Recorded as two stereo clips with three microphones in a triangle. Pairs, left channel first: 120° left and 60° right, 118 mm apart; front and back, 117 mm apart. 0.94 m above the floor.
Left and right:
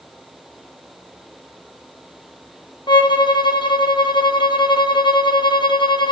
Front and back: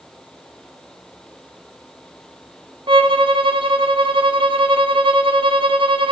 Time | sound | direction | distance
2.9 | a violin | 155° left | 1.0 m